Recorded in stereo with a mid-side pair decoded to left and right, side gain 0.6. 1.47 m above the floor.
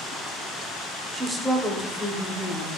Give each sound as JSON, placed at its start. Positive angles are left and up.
{"t": 1.1, "sound": "a woman speaking", "azimuth_deg": -30, "distance_m": 0.8}